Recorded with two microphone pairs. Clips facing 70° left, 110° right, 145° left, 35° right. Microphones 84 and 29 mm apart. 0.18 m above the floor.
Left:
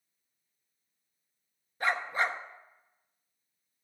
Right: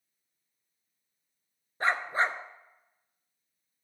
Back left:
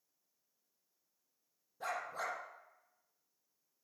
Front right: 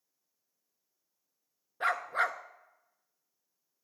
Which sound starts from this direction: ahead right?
A dog barking, at 1.8 s.